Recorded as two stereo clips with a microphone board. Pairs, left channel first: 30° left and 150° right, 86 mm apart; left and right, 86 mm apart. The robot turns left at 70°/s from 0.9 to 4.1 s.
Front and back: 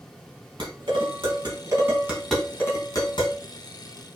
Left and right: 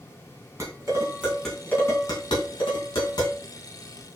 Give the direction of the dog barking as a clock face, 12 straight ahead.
I don't hear a dog barking.